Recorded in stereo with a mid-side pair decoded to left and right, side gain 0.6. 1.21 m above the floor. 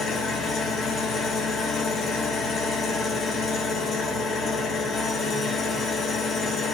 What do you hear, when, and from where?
0.0 s an engine running: 35° left, 1.0 m